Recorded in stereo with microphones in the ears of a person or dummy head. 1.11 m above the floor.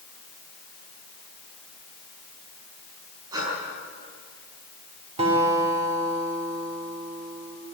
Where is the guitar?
35° right (ahead or behind), 3.5 m.